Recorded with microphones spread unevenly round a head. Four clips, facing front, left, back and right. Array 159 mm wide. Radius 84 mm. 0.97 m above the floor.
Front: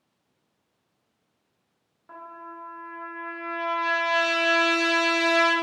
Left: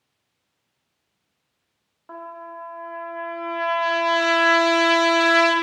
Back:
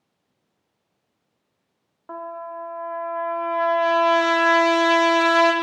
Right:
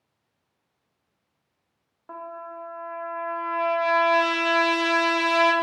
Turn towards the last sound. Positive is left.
turn(degrees=-170)